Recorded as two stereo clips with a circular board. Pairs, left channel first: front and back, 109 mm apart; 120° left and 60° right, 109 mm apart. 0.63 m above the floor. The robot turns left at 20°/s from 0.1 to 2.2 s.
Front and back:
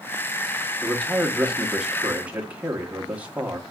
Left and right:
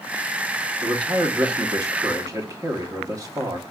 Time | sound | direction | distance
0.8 | a man speaking | 80° right | 1.0 m